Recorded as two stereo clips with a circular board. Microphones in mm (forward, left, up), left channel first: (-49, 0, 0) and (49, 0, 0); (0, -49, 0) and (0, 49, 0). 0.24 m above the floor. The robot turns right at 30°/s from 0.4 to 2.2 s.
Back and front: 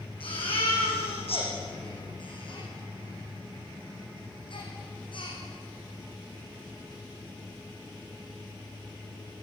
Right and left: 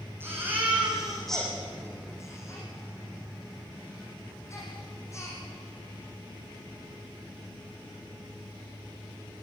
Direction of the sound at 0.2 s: 155° left.